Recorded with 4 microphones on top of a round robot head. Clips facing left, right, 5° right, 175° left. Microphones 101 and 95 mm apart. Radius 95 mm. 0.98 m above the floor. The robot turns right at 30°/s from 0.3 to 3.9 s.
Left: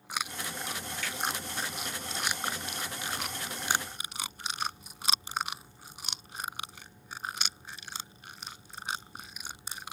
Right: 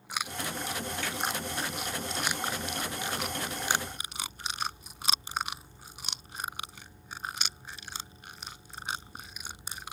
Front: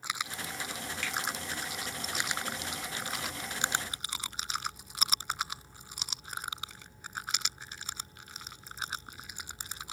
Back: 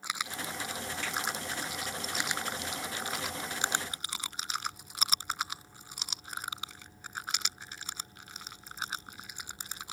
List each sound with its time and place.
1.0 s a finger snap: 30° right, 1.2 m; by 1.2 s 25° right, 1.2 m